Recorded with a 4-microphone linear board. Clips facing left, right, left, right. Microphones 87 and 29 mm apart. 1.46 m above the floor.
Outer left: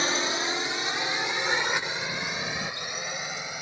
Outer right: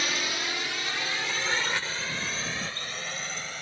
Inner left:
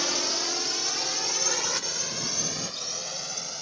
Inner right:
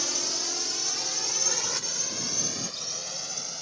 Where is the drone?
30° left (ahead or behind); by 3.6 s 15° left (ahead or behind).